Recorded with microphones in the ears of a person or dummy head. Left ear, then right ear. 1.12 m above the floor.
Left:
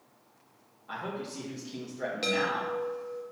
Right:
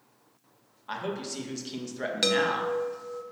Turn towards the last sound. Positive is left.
turn(degrees=-25)  # may be behind; listen again after turning